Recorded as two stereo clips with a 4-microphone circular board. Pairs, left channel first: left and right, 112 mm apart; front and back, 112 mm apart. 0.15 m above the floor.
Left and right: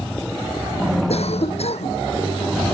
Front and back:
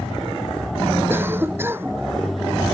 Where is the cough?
110° left.